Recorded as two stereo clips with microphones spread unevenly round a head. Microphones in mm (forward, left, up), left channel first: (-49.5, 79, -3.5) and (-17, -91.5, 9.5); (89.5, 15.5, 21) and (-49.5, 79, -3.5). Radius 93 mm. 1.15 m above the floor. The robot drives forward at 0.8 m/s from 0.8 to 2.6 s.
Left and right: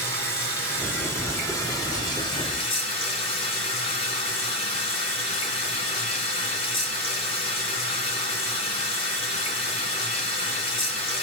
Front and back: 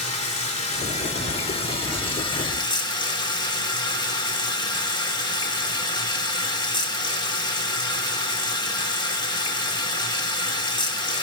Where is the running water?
20° left, 3 m; by 11.2 s 40° left, 2.0 m.